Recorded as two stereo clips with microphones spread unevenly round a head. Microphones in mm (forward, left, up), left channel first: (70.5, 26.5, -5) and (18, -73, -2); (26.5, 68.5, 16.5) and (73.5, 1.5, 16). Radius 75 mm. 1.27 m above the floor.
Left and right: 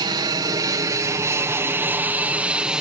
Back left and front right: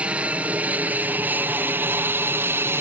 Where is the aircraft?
125° right; by 2.8 s 40° right.